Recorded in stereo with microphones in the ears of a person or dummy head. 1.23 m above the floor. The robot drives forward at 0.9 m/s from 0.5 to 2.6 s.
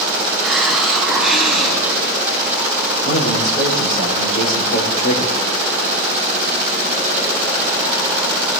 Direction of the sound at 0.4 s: Centre (ahead or behind).